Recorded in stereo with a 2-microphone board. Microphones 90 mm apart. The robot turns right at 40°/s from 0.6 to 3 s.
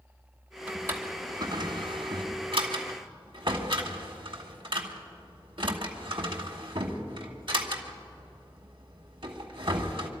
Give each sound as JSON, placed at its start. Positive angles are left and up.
{"t": 0.7, "sound": "a drawer", "side_deg": -15, "distance_m": 1.5}